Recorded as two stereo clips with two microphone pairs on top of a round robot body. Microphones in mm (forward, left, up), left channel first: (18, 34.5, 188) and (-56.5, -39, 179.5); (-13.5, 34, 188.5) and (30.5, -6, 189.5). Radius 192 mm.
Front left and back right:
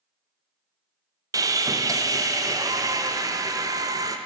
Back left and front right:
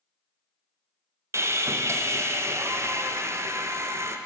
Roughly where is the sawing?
Right.